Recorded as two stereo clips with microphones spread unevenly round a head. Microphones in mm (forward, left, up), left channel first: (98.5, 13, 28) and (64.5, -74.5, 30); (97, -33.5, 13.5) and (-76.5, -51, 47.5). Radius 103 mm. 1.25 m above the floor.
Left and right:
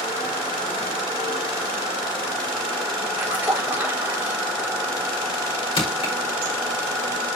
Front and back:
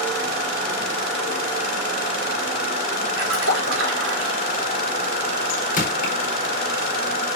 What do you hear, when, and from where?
3.2 s a splash: 175° left, 4 m
5.8 s crushing: 55° left, 4.5 m